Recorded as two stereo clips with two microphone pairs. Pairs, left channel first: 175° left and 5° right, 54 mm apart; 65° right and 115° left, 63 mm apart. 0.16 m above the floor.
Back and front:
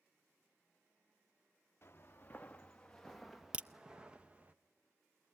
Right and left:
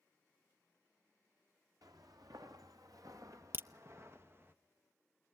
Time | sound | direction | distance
1.8 | footsteps | 130° left | 1.2 m
3.5 | a crack | 65° left | 0.5 m